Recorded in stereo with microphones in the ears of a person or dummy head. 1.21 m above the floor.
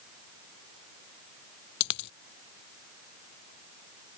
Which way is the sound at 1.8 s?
60° left (ahead or behind).